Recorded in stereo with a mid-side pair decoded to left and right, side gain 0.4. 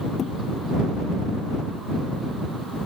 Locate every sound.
0.2 s a thud: 65° left